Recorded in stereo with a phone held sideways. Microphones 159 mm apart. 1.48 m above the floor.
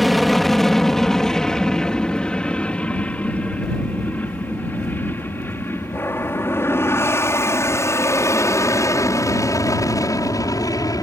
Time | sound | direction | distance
0.0 | an aircraft | centre (ahead or behind) | ?